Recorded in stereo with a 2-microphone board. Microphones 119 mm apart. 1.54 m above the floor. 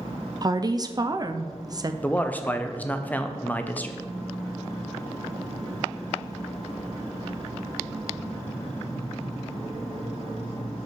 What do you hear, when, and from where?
0.4 s a woman speaking: 30° right (ahead or behind), 0.6 m
2.0 s a man speaking: 15° left (ahead or behind), 0.8 m